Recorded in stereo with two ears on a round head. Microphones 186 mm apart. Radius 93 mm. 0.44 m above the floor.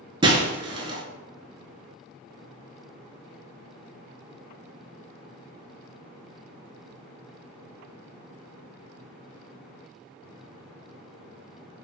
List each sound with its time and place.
0.2 s breaking glass: 20° right (ahead or behind), 0.6 m